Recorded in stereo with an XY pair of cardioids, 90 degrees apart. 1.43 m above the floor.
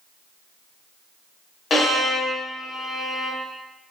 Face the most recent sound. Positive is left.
turn(degrees=55)